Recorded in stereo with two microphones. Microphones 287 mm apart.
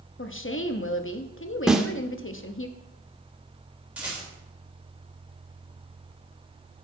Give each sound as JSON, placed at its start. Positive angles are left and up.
{"t": 0.2, "sound": "a woman speaking", "side_deg": 45, "distance_m": 0.6}
{"t": 1.7, "sound": "a snare drum", "side_deg": 0, "distance_m": 0.7}
{"t": 4.0, "sound": "a rattle", "side_deg": -5, "distance_m": 3.5}